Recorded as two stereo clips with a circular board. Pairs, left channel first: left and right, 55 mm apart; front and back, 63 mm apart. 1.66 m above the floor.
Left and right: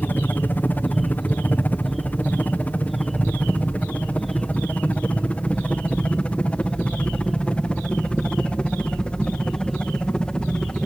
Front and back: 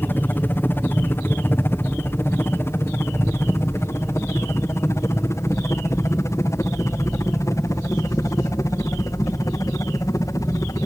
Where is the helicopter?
50° left; by 10.9 s 20° left.